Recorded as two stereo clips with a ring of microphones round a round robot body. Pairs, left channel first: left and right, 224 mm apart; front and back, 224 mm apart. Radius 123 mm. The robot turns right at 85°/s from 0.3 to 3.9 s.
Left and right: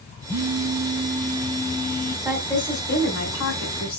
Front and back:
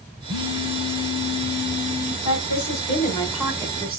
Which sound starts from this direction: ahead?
A woman speaking, at 2.2 s.